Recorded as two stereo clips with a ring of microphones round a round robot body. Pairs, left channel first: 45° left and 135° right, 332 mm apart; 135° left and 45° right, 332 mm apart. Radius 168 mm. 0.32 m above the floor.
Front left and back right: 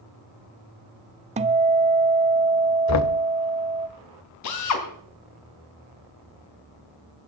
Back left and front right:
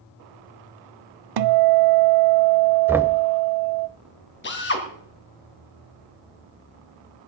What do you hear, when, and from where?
1.4 s a guitar: 65° right, 0.6 m
2.9 s knocking: 35° left, 0.8 m
4.4 s a drill: 80° left, 2.5 m